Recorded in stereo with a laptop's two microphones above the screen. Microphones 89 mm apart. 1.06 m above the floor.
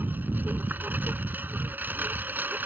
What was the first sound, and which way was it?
A lawn mower, 20° right (ahead or behind).